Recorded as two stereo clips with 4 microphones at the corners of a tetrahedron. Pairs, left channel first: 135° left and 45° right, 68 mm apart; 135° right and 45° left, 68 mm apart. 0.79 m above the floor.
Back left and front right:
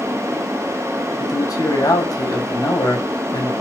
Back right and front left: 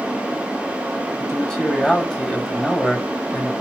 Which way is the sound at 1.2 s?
145° left.